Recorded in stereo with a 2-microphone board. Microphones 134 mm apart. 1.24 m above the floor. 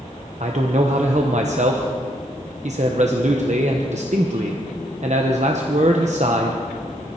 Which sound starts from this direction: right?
A man speaking, at 0.4 s.